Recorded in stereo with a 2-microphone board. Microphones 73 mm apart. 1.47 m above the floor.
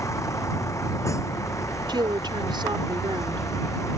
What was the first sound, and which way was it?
A vehicle, 40° left (ahead or behind).